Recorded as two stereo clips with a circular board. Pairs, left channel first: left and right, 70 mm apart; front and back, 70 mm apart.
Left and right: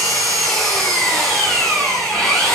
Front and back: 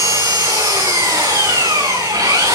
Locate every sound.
0.0 s an engine running: 175° left, 6.5 m